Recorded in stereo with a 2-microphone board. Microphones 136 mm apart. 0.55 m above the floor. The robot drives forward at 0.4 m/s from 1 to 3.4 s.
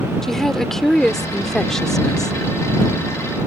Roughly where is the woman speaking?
Centre.